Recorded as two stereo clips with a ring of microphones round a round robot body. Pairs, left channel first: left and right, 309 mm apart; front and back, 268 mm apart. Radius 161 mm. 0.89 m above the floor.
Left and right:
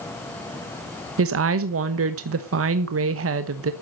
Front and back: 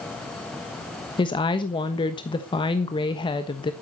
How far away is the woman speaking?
About 1.1 m.